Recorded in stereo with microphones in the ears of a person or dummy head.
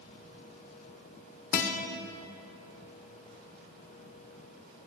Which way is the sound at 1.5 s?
45° left (ahead or behind).